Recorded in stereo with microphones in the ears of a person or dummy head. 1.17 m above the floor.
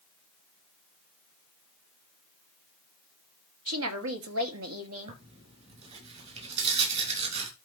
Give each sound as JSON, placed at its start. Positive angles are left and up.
{"t": 3.7, "sound": "a woman speaking", "side_deg": -75, "distance_m": 2.5}
{"t": 5.1, "sound": "tearing paper", "side_deg": -35, "distance_m": 6.0}